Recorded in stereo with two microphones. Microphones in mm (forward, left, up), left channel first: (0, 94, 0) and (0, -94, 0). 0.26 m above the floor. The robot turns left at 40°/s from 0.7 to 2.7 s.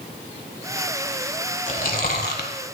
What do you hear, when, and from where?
1.7 s chewing: 130° left, 1.0 m; by 2.5 s 95° left, 1.0 m